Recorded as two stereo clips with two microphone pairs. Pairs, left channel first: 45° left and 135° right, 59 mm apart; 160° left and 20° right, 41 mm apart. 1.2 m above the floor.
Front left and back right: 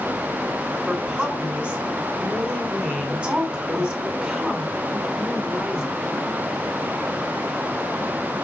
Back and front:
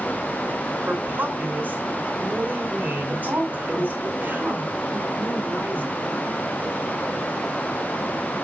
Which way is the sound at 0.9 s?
65° right.